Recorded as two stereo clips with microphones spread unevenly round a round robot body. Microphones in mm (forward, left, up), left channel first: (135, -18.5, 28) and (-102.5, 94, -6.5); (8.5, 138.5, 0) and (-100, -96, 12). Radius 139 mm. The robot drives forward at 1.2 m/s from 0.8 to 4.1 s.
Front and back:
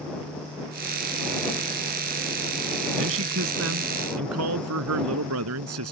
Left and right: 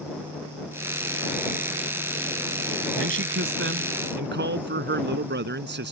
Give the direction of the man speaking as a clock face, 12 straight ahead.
5 o'clock.